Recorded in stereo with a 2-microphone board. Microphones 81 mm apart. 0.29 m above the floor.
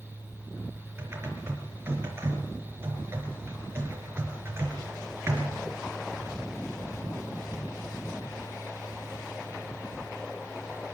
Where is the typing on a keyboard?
30° right (ahead or behind), 4 m.